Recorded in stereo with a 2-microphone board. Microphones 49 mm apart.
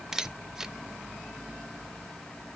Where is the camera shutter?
10° right (ahead or behind), 0.6 m.